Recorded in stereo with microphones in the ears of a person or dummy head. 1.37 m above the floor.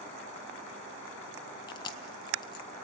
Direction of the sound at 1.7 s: 25° left (ahead or behind).